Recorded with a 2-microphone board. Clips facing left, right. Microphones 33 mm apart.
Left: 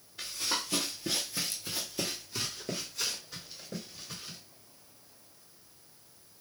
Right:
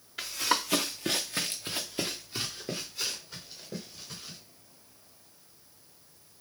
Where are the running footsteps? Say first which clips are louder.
Right 5 dB; 75° right (ahead or behind), 1.3 m; by 4.4 s 5° left (ahead or behind), 3 m.